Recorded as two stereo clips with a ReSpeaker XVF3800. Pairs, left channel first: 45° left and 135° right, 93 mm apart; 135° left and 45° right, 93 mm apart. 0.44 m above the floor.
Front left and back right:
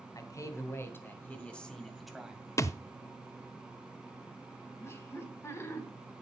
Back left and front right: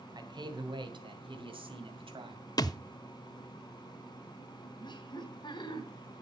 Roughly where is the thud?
Left.